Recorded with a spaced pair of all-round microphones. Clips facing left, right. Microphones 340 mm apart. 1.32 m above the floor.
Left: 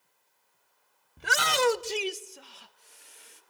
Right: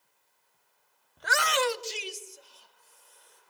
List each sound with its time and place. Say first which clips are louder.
1.2 s a shout: left 2 dB; 35° left (ahead or behind), 0.6 m; by 3.4 s 85° left, 2.0 m